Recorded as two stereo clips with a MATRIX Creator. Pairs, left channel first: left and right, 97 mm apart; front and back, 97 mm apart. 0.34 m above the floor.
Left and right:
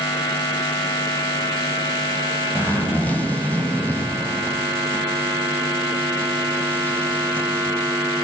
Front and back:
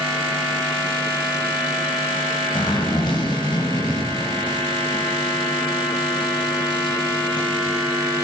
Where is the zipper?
20° left, 1.5 m.